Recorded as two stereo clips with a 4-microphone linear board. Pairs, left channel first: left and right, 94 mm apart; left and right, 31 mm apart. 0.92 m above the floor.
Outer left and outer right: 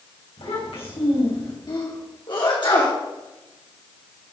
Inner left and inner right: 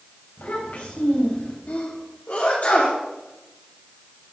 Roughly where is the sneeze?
Left.